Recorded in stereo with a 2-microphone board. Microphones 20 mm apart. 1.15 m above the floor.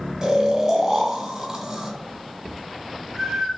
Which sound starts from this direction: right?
Snoring, at 0.2 s.